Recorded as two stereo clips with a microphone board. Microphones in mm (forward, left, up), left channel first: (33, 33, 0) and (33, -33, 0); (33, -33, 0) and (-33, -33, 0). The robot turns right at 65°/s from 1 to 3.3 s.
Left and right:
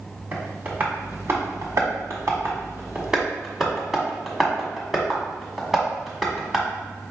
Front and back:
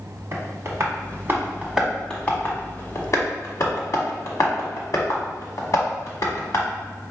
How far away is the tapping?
About 1.2 m.